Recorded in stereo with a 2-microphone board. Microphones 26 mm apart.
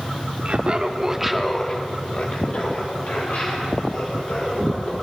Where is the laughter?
50° right (ahead or behind), 1.2 m; by 4.9 s 75° left (ahead or behind), 3.5 m.